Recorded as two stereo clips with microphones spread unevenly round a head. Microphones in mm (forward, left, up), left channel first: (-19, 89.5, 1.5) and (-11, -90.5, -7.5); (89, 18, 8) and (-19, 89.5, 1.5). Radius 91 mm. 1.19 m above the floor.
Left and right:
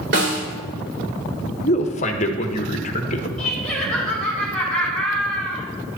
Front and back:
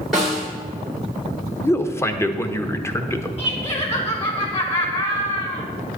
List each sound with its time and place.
0.1 s a snare drum: 120° right, 2.5 m
1.6 s a man speaking: 40° left, 1.2 m
3.4 s laughter: 10° left, 4 m